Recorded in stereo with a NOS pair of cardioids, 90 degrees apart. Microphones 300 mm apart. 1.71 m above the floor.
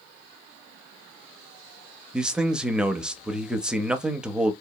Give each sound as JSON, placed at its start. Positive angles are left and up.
{"t": 2.1, "sound": "a man speaking", "azimuth_deg": -5, "distance_m": 0.5}